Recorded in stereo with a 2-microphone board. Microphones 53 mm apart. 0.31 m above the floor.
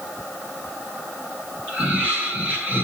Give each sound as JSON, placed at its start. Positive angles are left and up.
{"t": 1.7, "sound": "laughter", "side_deg": -30, "distance_m": 6.0}